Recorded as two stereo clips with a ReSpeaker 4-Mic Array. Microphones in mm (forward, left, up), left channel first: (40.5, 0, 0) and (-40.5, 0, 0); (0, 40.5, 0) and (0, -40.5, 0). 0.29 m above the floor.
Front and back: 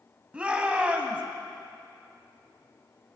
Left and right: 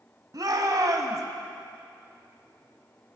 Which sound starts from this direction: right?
A shout, at 0.3 s.